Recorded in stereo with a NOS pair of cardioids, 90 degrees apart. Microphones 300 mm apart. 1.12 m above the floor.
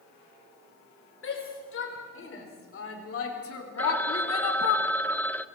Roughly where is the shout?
Ahead left.